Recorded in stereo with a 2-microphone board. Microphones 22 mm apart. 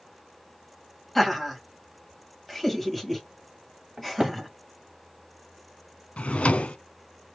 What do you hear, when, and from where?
1.1 s laughter: 15° left (ahead or behind), 1.1 m
4.0 s a cupboard door: 30° right (ahead or behind), 0.9 m
6.2 s a drawer: 75° left (ahead or behind), 0.5 m